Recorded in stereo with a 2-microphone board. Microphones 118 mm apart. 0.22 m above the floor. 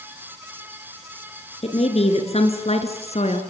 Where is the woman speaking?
60° left (ahead or behind), 3.5 m; by 3.4 s 65° left (ahead or behind), 3.5 m.